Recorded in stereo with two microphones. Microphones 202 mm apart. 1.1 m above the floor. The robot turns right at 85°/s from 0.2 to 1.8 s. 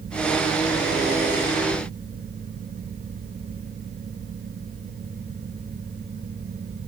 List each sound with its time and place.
Only background noise.